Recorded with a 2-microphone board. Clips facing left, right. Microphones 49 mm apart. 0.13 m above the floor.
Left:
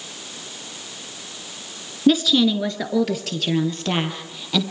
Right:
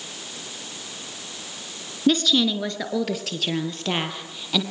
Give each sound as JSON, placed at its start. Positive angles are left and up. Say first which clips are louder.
{"t": 2.1, "sound": "a woman speaking", "louder": "left 3 dB", "side_deg": 5, "distance_m": 1.6}